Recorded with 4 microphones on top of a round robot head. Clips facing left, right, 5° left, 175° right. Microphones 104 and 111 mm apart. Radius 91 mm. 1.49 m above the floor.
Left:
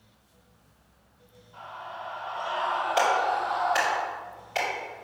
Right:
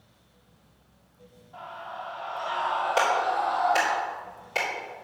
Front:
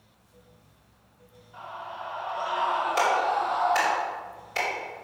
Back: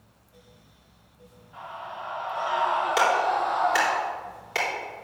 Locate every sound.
1.5 s a scream: 145° right, 3 m; by 4.0 s 130° right, 1.0 m
3.0 s a clap: 160° right, 4 m